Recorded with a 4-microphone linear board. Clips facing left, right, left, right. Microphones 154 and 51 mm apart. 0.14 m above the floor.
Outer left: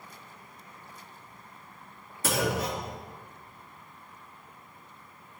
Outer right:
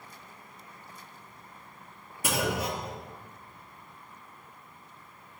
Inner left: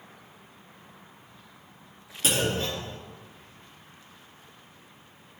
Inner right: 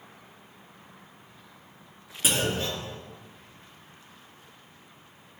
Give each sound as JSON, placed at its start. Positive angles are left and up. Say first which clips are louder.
{"t": 2.2, "sound": "a clunk", "louder": "outer left 1 dB, inner left 1 dB", "side_deg": -15, "distance_m": 2.5}